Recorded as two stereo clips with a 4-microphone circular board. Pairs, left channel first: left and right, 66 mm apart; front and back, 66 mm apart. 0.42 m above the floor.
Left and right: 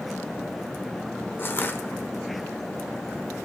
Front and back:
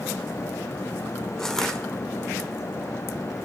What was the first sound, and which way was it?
Crushing, 75° left.